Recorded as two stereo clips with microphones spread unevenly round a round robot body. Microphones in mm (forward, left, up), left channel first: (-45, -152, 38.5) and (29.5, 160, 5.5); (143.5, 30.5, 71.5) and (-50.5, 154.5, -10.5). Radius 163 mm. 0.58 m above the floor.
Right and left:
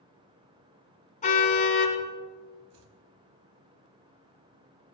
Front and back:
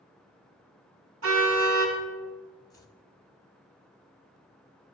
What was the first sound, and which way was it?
A car horn, 170° right.